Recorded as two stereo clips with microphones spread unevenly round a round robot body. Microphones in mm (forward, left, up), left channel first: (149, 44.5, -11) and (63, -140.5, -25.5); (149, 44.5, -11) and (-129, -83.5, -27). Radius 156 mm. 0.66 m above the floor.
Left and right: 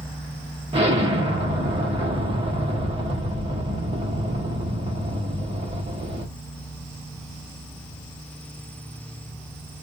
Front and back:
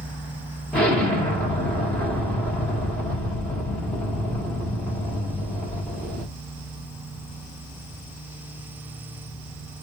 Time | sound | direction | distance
0.7 | an explosion | 65° right | 1.2 m